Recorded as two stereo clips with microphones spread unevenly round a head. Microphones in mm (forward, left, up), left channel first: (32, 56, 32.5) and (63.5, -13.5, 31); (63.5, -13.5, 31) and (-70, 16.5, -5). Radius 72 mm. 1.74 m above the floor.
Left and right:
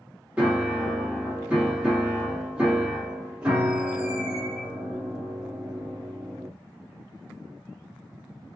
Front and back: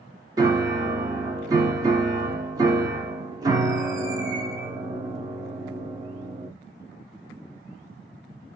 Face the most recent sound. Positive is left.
turn(degrees=-125)